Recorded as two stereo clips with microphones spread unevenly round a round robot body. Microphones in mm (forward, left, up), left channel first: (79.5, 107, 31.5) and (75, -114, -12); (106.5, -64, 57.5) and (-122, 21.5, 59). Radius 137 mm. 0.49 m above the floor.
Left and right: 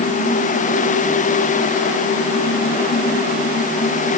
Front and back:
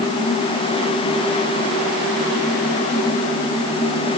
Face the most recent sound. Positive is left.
No sound to turn to.